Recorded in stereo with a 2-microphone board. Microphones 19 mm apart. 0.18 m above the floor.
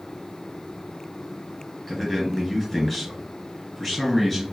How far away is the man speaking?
About 3 m.